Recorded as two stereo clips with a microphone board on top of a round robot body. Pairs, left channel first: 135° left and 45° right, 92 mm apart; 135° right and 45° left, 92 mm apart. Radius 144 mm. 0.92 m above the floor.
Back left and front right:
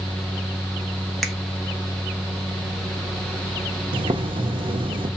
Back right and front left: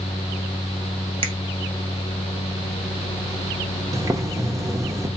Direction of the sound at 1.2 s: 50° left.